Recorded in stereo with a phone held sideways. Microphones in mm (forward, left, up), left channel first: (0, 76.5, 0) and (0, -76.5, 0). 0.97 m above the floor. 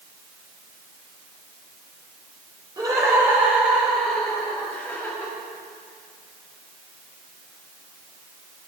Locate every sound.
2.8 s laughter: 25° right (ahead or behind), 3.5 m; by 5.3 s 15° left (ahead or behind), 5.5 m